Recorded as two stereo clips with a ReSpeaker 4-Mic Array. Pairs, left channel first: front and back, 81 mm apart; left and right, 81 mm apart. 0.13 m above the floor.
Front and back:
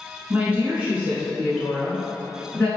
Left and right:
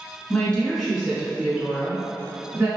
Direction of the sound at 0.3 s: 145° left.